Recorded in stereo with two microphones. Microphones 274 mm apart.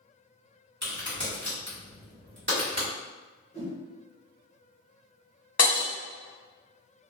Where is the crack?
40° right (ahead or behind), 1.6 m.